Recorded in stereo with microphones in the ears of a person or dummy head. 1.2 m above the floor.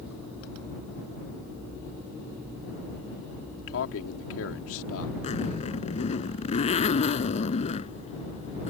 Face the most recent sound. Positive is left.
turn(degrees=35)  # may be behind; listen again after turning